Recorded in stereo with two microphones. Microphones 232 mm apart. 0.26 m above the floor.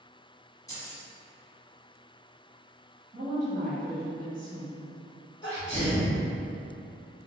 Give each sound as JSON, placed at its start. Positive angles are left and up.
{"t": 0.7, "sound": "keys jangling", "side_deg": 15, "distance_m": 1.6}
{"t": 3.1, "sound": "a woman speaking", "side_deg": -35, "distance_m": 1.2}
{"t": 5.4, "sound": "a sneeze", "side_deg": 25, "distance_m": 1.3}